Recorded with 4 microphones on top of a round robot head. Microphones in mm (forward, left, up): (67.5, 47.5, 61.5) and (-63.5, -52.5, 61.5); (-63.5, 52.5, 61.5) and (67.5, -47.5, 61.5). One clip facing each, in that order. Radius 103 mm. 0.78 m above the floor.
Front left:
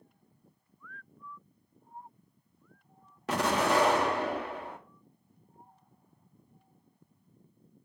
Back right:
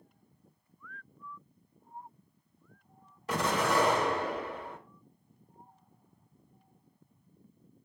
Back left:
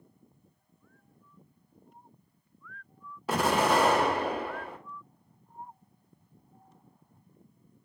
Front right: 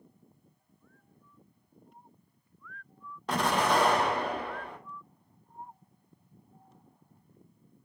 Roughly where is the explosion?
Ahead left.